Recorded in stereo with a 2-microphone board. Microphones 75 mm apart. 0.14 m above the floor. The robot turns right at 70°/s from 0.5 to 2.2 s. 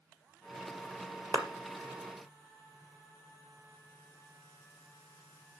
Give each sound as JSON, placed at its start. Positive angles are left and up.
{"t": 1.3, "sound": "a clap", "side_deg": -50, "distance_m": 2.0}